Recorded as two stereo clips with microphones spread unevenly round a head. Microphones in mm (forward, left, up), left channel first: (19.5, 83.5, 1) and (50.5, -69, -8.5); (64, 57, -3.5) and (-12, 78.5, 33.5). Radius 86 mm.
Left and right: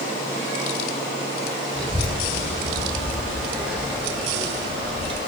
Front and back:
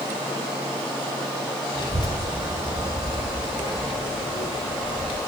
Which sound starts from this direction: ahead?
A child speaking, at 1.8 s.